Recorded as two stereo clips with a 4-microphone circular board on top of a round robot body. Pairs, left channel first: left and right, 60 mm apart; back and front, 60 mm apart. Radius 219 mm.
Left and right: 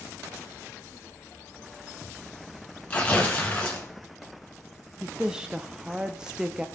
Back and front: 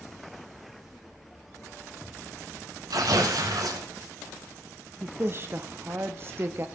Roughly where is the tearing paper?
Ahead.